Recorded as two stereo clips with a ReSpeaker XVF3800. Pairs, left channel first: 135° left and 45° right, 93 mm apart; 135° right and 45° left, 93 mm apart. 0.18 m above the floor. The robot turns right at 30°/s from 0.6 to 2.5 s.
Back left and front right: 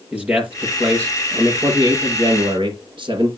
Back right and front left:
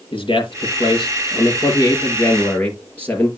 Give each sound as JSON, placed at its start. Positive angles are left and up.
{"t": 0.1, "sound": "a man speaking", "azimuth_deg": -120, "distance_m": 4.5}